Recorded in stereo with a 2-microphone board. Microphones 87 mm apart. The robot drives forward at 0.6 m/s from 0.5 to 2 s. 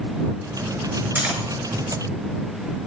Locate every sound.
1.1 s cutlery clinking: 20° right (ahead or behind), 2 m